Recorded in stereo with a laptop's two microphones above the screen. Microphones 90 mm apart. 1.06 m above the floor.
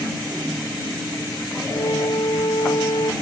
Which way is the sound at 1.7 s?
60° left (ahead or behind).